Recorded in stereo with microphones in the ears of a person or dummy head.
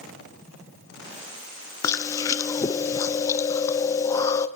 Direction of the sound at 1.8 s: 20° left (ahead or behind).